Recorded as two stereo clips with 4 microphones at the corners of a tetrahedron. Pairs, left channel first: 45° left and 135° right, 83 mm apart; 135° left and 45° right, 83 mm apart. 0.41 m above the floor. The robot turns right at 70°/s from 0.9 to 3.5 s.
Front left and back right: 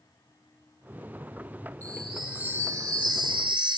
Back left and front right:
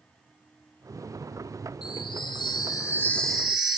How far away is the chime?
About 1.0 m.